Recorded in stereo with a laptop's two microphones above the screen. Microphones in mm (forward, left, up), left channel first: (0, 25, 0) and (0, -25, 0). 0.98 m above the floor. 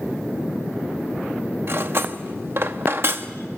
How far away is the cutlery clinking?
About 0.8 m.